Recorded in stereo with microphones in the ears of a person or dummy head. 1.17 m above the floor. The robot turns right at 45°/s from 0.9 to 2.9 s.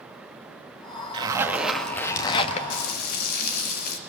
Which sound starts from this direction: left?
Frying, at 2.7 s.